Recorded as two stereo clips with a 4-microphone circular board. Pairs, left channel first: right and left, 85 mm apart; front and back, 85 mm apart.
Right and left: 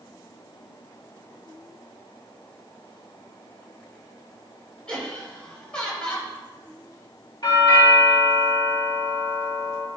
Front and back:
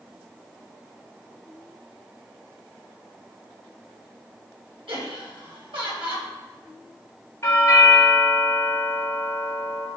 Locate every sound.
4.9 s laughter: 170° right, 4 m
7.4 s a doorbell: 60° right, 3.5 m